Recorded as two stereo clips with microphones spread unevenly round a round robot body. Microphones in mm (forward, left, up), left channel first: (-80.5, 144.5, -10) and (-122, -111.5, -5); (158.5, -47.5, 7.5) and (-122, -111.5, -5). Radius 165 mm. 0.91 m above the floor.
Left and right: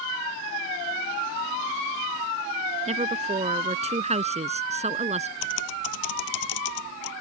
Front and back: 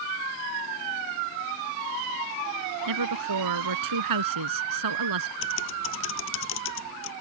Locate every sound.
2.9 s a woman speaking: 165° right
5.4 s typing on a keyboard: 70° left